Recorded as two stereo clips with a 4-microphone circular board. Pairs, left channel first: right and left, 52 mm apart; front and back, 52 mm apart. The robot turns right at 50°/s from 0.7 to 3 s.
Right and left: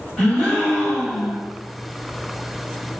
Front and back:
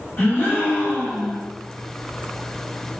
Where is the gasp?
20° right, 1.6 m; by 1.4 s 20° left, 1.6 m.